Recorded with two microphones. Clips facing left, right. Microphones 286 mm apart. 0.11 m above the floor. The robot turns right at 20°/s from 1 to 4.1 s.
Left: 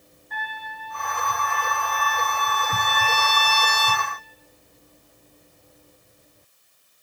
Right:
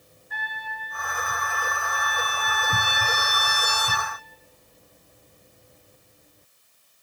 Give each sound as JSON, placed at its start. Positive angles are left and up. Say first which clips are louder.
{"t": 0.3, "sound": "a trumpet", "louder": "left 2 dB", "side_deg": -5, "distance_m": 1.0}